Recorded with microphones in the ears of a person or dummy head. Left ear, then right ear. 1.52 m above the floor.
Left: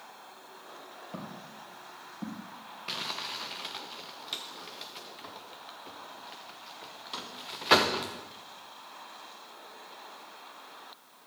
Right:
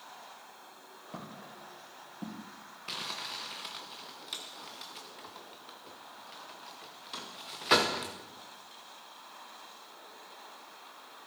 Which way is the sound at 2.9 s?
5° left (ahead or behind).